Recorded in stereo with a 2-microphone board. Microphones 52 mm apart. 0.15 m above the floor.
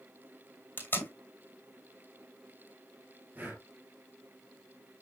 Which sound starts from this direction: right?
Breathing, at 3.4 s.